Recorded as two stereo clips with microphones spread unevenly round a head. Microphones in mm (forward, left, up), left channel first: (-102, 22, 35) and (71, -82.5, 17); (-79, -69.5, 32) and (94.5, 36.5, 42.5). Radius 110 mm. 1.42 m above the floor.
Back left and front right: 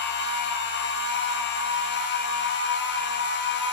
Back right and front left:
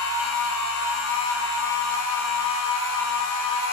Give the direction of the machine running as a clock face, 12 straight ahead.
6 o'clock.